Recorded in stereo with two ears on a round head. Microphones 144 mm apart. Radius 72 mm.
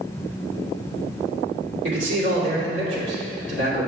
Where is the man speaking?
80° right, 2.5 m.